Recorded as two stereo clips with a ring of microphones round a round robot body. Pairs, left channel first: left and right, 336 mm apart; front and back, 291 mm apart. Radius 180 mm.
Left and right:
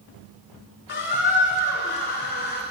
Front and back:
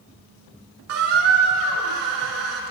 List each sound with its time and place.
0.9 s a squeak: 150° left, 0.5 m